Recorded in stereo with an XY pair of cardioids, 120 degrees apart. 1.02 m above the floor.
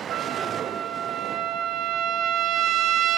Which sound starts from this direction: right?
A trumpet, at 0.1 s.